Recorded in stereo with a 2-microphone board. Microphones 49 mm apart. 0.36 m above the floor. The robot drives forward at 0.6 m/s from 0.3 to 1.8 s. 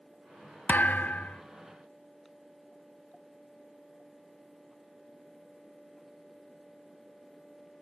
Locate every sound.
0.7 s a thud: 35° left (ahead or behind), 0.5 m; by 1.4 s 30° left (ahead or behind), 0.6 m